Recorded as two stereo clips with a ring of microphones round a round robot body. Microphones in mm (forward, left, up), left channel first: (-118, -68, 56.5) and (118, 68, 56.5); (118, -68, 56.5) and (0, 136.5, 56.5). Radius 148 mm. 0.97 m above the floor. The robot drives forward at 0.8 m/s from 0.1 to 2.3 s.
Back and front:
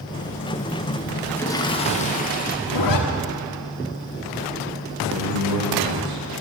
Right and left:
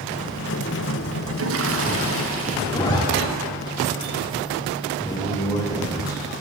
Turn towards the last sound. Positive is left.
turn(degrees=15)